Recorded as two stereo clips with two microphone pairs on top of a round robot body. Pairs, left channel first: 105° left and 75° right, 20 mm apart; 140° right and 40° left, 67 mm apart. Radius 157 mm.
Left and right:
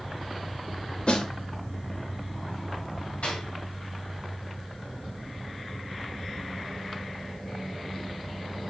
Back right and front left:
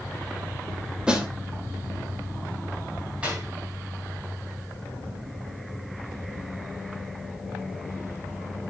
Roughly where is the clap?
Left.